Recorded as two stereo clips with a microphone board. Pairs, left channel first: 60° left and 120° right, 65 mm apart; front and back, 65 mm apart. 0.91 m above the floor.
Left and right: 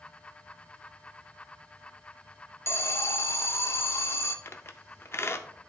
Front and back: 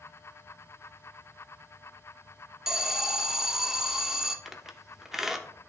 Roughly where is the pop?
I don't hear a pop.